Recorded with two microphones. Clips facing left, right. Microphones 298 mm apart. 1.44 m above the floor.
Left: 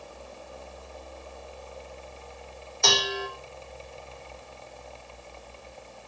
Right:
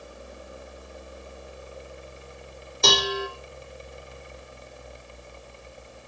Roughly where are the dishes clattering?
Right.